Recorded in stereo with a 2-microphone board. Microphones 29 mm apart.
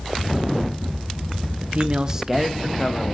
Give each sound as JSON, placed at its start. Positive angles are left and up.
{"t": 1.6, "sound": "a man speaking", "side_deg": -55, "distance_m": 1.0}